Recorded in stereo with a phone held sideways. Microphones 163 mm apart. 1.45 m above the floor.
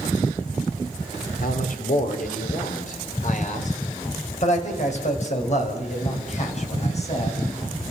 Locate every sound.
1.4 s a man speaking: 60° left (ahead or behind), 3.5 m; by 7.4 s 45° left (ahead or behind), 8 m